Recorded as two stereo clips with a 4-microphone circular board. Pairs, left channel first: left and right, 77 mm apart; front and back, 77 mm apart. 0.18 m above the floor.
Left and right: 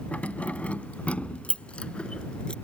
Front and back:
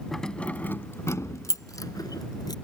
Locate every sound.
0.1 s keys jangling: 80° left; by 2.5 s 15° left